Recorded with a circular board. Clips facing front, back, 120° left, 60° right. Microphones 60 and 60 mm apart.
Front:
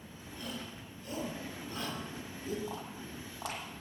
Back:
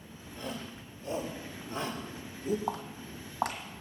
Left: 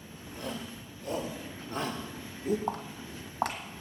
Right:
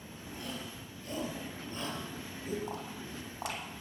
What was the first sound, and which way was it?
A shout, 120° left.